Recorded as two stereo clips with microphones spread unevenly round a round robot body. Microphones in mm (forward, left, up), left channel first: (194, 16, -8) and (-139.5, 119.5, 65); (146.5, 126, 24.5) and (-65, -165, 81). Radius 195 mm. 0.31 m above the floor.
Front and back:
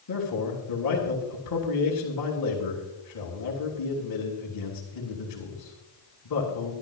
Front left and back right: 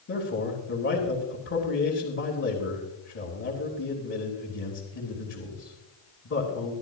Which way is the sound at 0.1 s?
5° left.